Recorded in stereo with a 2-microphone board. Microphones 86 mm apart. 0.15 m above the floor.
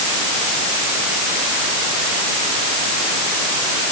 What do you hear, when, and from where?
Only background noise.